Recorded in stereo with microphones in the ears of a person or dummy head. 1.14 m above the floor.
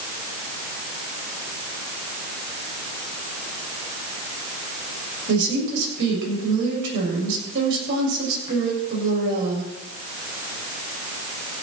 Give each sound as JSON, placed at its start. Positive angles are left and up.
{"t": 5.3, "sound": "a woman speaking", "side_deg": -70, "distance_m": 6.5}